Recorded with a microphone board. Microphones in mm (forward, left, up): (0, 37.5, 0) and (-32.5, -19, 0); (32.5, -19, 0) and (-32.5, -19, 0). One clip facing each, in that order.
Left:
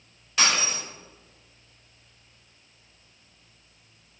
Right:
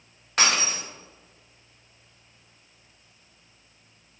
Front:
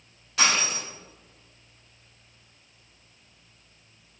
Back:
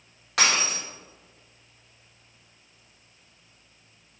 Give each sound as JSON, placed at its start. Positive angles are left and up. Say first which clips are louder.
{"t": 0.4, "sound": "breaking glass", "louder": "right 1 dB, even", "azimuth_deg": -160, "distance_m": 2.5}